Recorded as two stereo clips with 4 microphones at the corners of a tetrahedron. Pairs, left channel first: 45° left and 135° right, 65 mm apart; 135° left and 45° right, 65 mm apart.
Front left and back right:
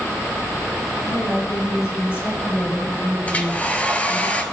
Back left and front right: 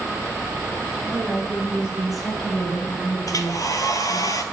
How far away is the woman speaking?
About 2.5 m.